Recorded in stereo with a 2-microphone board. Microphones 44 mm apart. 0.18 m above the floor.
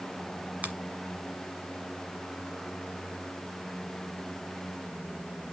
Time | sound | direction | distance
0.6 | a finger snap | 35° right (ahead or behind) | 1.4 m